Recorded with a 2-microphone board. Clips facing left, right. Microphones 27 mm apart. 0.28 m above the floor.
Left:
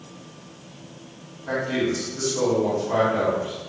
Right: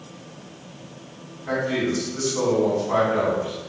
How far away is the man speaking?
About 2.0 m.